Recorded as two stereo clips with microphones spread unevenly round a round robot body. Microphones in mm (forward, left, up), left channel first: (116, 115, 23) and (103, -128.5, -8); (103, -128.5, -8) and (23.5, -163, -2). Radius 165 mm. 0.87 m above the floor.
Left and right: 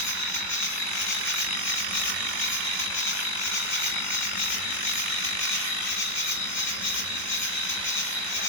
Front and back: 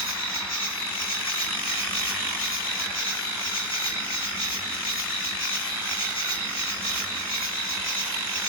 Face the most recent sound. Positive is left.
turn(degrees=145)